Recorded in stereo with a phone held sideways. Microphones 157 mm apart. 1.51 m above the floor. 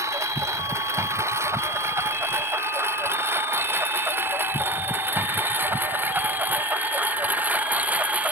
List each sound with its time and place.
0.0 s a lawn mower: 20° right (ahead or behind); by 8.3 s 10° right (ahead or behind)